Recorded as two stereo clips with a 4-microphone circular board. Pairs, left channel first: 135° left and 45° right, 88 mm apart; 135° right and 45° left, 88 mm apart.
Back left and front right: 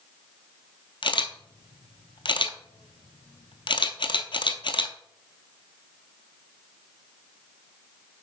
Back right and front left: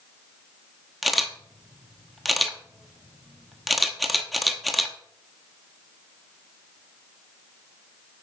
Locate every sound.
1.0 s a camera shutter: 135° left, 0.5 m